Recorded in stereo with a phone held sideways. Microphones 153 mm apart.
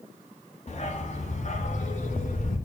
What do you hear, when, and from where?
0.7 s a dog barking: 45° left (ahead or behind), 2 m; by 2.6 s 55° left (ahead or behind), 3 m